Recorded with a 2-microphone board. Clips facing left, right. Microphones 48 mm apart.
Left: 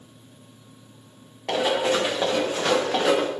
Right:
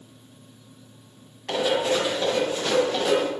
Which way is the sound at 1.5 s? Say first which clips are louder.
Left 1 dB; 55° left (ahead or behind).